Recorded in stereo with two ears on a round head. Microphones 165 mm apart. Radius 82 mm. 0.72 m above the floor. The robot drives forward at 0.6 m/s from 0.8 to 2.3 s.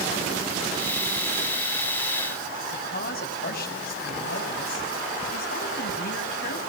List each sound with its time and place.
2.7 s a woman speaking: 55° left (ahead or behind), 5.5 m